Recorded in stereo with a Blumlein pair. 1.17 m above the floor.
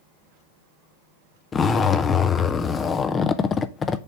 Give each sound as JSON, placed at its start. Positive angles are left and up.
{"t": 1.5, "sound": "a zipper", "azimuth_deg": 20, "distance_m": 0.7}